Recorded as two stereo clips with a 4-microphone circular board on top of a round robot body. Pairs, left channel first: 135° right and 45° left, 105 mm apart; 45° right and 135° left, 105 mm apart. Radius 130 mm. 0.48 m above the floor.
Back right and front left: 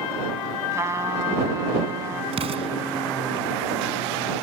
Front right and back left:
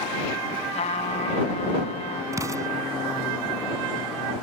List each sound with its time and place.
0.7 s a trumpet: 20° right
2.3 s an explosion: 75° left